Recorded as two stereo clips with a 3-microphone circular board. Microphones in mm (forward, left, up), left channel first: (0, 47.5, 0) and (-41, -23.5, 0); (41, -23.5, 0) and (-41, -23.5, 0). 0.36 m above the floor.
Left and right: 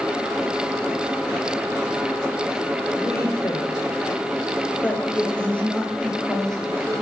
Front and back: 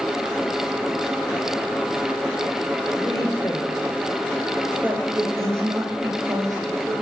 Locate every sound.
3.0 s a woman speaking: 30° left, 1.4 m; by 6.9 s 150° left, 2.5 m